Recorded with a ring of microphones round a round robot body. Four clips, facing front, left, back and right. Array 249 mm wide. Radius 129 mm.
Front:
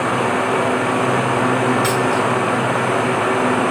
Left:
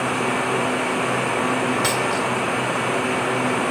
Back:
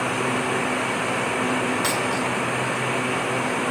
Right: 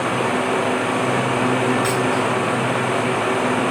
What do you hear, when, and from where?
1.8 s a dropped coin: 85° left, 3 m